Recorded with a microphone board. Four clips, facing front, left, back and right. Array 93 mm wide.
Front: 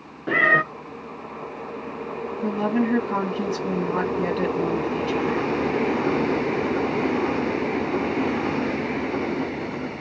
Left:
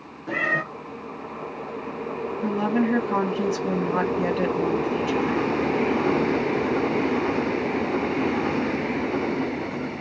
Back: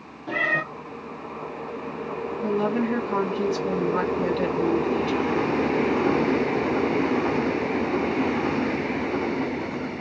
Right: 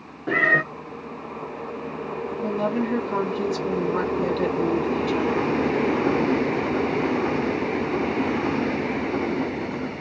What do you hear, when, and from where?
0.3 s a cat meowing: 35° right, 0.6 m
2.4 s a woman speaking: 60° left, 1.6 m